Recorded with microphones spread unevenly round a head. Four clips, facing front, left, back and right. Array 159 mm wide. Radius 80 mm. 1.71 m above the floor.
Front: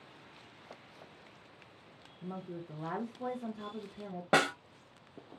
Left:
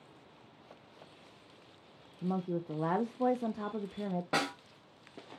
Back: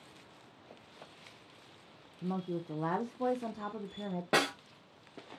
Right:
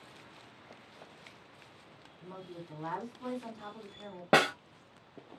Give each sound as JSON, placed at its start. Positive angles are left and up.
{"t": 2.2, "sound": "a woman speaking", "azimuth_deg": 115, "distance_m": 0.6}
{"t": 4.3, "sound": "a snare drum", "azimuth_deg": -80, "distance_m": 0.8}